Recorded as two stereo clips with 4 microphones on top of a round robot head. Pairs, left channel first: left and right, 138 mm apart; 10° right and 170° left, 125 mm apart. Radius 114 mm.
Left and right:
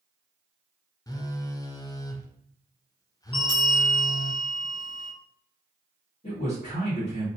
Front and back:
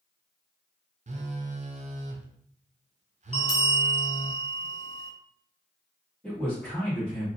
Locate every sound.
1.1 s a phone buzzing: 155° left, 0.6 m
3.3 s a bell: 30° left, 1.7 m
6.2 s a man speaking: 70° left, 2 m